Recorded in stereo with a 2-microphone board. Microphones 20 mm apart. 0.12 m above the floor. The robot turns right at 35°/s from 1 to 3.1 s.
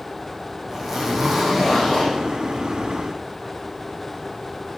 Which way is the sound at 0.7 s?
20° right.